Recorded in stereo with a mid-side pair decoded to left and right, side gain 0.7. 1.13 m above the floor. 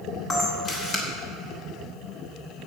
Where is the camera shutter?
30° left, 3 m.